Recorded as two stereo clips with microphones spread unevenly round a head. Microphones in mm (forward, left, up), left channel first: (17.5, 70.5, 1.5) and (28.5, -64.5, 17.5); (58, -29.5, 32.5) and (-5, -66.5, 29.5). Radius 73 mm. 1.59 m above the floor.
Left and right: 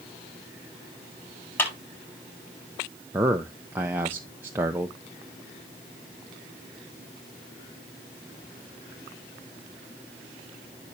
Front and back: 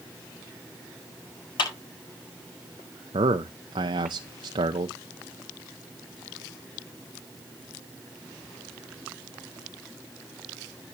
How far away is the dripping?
I don't hear dripping.